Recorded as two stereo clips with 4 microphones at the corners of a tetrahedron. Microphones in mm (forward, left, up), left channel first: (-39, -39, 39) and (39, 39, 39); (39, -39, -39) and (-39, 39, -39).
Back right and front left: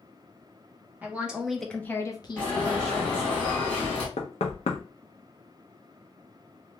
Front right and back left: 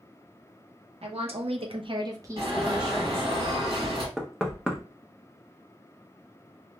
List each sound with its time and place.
1.0 s a woman speaking: 120° left, 1.0 m; by 3.3 s 120° right, 1.0 m
2.4 s an alarm: 150° left, 2 m
4.2 s knocking: 140° right, 0.7 m